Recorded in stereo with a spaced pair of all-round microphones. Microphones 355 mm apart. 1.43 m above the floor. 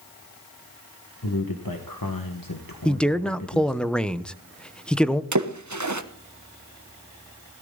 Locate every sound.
1.2 s a man speaking: 75° left (ahead or behind), 1.5 m
2.9 s a man speaking: 5° left (ahead or behind), 0.9 m
5.3 s a splash: 55° right (ahead or behind), 1.2 m